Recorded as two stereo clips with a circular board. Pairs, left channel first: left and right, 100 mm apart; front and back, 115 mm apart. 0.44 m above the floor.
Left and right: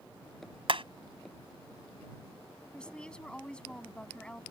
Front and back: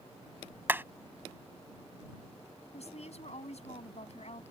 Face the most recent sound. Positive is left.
turn(degrees=10)